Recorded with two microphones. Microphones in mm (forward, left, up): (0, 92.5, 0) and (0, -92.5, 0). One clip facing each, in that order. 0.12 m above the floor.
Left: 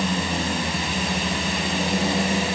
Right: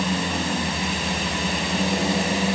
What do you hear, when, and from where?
Only background noise.